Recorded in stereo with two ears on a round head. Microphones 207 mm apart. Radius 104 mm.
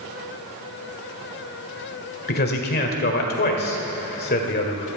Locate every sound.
2.3 s a man speaking: 40° left (ahead or behind), 1.9 m